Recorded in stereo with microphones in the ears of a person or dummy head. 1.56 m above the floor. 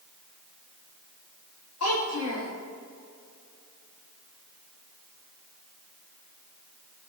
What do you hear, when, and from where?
1.8 s a child speaking: 80° left, 4 m